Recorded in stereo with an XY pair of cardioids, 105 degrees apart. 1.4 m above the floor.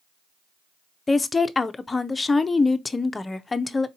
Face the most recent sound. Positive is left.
turn(degrees=25)